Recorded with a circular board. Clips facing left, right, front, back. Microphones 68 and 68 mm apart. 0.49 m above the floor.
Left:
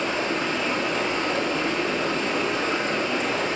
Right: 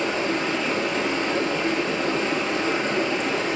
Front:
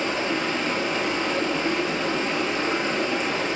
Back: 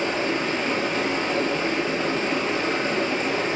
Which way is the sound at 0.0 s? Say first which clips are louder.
Right 1 dB, back 1 dB; 120° right.